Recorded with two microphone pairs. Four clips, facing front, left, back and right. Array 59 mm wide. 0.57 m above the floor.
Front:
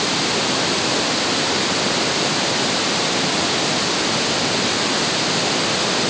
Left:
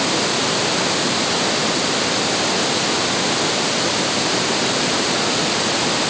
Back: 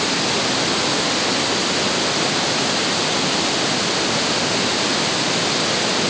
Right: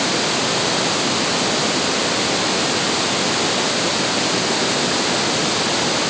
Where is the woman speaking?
I don't hear a woman speaking.